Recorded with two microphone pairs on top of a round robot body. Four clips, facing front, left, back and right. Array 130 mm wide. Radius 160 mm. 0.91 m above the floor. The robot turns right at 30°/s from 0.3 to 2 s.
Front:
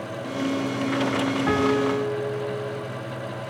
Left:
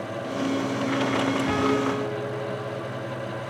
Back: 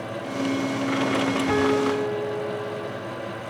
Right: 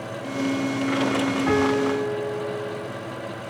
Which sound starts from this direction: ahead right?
A piano, at 1.5 s.